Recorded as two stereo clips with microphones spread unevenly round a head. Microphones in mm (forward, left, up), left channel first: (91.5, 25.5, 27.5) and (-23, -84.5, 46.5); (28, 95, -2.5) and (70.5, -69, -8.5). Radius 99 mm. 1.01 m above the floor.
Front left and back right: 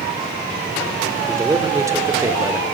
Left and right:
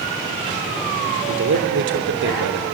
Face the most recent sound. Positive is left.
turn(degrees=-60)